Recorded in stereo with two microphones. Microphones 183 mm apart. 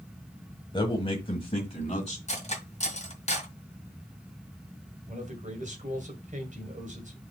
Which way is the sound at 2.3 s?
35° left (ahead or behind).